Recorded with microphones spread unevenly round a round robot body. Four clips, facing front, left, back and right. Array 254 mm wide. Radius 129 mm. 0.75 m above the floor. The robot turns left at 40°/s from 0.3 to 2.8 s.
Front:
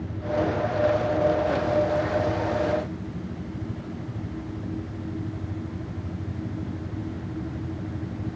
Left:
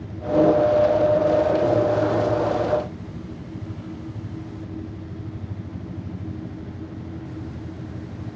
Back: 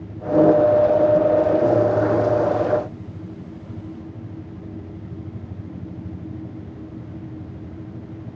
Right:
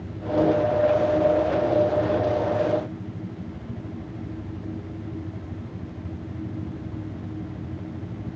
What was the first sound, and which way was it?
Only background noise.